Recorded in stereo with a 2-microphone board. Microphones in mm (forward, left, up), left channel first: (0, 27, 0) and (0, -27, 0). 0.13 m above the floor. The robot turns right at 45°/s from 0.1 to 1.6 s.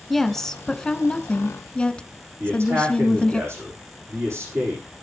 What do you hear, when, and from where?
0.1 s a woman speaking: 5° left (ahead or behind), 1.1 m; by 3.4 s 20° left (ahead or behind), 1.1 m
2.4 s a man speaking: 55° right (ahead or behind), 7 m